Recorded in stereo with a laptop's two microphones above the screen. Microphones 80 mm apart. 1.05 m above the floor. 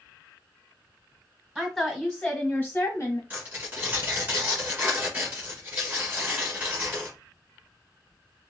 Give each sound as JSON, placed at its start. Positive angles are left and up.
{"t": 1.6, "sound": "a woman speaking", "side_deg": -5, "distance_m": 1.5}
{"t": 3.3, "sound": "tearing paper", "side_deg": -25, "distance_m": 1.2}